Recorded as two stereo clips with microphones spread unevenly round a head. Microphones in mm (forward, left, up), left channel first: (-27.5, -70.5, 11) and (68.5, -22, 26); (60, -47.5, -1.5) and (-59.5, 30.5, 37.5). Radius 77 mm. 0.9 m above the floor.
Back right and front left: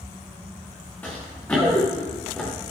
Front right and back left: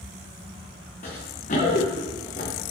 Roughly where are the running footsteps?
Right.